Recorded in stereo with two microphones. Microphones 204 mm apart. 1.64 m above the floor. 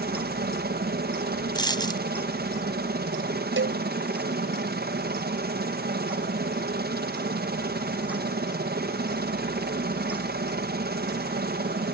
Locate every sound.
0.0 s a helicopter: 50° right (ahead or behind)
1.6 s a dropped coin: 20° left (ahead or behind)
3.6 s a cowbell: 75° right (ahead or behind)